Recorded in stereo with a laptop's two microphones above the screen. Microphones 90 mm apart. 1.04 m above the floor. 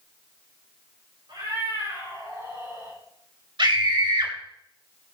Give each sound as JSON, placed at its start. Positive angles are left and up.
{"t": 1.3, "sound": "a cat meowing", "side_deg": -60, "distance_m": 5.0}
{"t": 3.6, "sound": "a scream", "side_deg": -65, "distance_m": 2.5}